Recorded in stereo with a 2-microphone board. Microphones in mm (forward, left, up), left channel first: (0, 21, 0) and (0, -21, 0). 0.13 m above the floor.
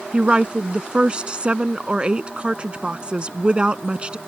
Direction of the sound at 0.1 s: 25° right (ahead or behind).